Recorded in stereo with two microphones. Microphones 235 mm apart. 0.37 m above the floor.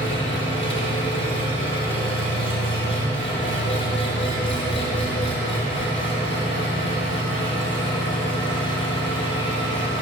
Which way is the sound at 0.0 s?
55° left (ahead or behind).